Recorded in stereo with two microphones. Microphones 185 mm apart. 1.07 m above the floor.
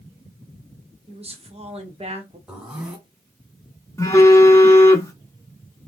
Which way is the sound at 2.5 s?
5° right (ahead or behind).